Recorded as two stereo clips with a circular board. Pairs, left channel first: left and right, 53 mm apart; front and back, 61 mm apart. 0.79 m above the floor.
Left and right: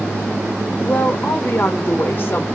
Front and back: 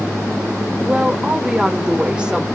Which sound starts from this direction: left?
A woman speaking, at 0.8 s.